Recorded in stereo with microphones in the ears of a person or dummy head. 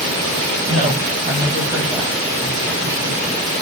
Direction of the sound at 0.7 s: 40° right (ahead or behind).